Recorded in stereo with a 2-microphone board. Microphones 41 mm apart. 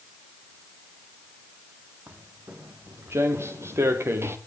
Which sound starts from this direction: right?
Footsteps, at 2.1 s.